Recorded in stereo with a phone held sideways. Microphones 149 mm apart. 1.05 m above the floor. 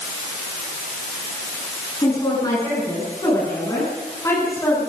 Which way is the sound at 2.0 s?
30° left (ahead or behind).